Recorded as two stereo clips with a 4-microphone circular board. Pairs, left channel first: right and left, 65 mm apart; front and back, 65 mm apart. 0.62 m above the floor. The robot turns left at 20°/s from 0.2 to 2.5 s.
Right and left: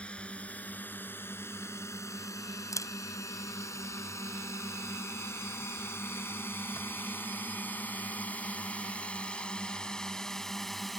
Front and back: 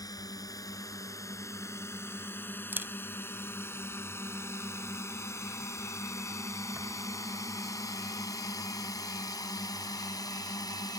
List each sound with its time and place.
0.0 s a drone: 20° right; by 11.0 s straight ahead
2.7 s a camera shutter: 120° right